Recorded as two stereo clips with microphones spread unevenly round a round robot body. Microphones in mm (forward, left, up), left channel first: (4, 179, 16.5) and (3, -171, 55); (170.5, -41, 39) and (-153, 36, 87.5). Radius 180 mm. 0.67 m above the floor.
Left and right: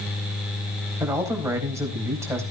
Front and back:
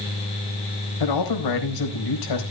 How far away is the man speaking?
About 4.5 m.